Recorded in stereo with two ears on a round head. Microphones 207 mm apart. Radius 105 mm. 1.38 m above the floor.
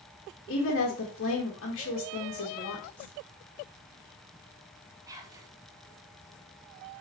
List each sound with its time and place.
0.5 s a woman speaking: 55° left (ahead or behind), 2.0 m
3.0 s a whoosh: 10° left (ahead or behind), 3.5 m
5.1 s whispering: 15° right (ahead or behind), 1.8 m